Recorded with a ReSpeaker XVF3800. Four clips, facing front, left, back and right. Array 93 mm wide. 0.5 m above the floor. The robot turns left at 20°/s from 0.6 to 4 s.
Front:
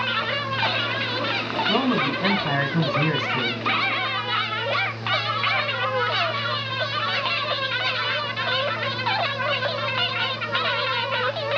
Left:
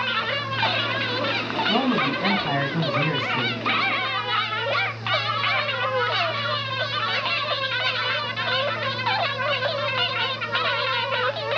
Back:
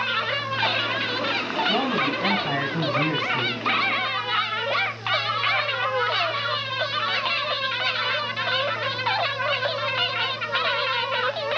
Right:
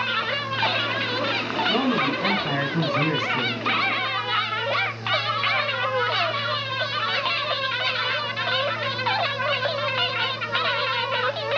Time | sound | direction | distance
1.7 | a man speaking | 10° left | 5.5 m